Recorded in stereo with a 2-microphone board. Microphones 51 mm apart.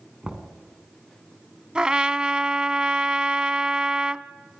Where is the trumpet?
15° right (ahead or behind), 0.5 m.